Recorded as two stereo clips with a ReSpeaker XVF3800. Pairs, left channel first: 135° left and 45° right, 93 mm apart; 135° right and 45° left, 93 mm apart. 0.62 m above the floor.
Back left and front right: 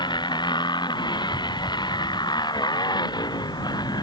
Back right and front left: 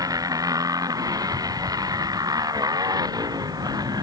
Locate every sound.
0.0 s a motorcycle: 95° left; by 4.0 s 90° left